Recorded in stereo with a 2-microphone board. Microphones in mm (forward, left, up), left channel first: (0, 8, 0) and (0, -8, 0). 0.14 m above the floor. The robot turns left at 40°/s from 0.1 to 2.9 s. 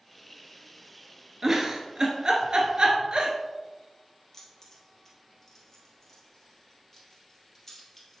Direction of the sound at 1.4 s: 20° right (ahead or behind).